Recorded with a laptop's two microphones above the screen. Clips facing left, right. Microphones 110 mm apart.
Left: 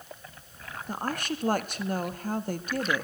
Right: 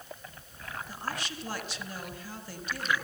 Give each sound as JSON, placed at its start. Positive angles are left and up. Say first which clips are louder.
{"t": 0.9, "sound": "a woman speaking", "louder": "left 8 dB", "side_deg": 55, "distance_m": 1.3}